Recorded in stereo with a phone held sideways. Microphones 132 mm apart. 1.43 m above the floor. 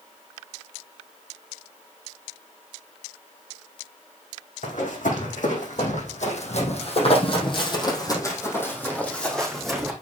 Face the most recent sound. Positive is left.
turn(degrees=-5)  # may be behind; listen again after turning